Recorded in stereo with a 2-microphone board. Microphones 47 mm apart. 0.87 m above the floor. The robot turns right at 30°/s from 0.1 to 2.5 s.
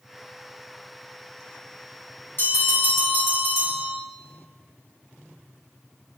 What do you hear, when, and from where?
2.4 s a bell: 50° left (ahead or behind), 1.7 m; by 4.0 s 55° left (ahead or behind), 1.7 m